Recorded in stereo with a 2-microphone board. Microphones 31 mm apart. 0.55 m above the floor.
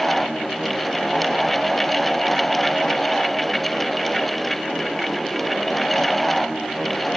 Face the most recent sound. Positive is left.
No sound to turn to.